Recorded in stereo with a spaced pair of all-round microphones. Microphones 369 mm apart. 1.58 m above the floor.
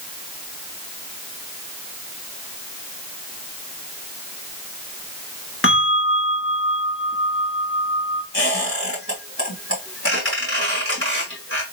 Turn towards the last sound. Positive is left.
turn(degrees=35)  # may be behind; listen again after turning